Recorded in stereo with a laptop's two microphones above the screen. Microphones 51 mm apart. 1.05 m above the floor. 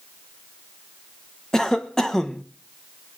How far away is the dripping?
No dripping in this recording.